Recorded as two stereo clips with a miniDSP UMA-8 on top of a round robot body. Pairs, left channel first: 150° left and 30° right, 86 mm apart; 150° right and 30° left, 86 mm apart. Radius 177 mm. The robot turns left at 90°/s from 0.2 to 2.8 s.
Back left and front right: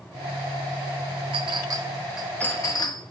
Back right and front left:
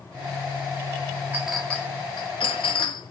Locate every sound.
1.3 s a clink: 40° right, 1.2 m; by 3.1 s 170° right, 1.2 m